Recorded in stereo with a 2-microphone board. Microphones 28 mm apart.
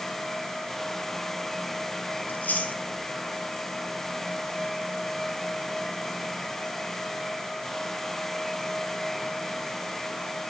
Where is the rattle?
I don't hear a rattle.